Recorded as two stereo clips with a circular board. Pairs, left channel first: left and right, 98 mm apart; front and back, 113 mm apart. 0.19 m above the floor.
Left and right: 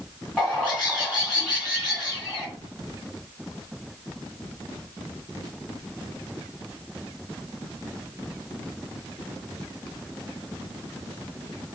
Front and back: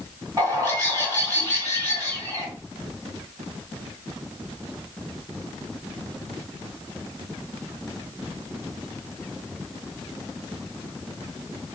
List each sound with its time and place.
0.4 s a bird: straight behind, 1.9 m